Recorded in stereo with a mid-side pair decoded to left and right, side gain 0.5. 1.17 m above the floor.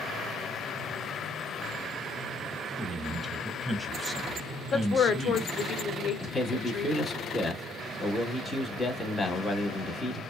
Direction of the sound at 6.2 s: 35° left.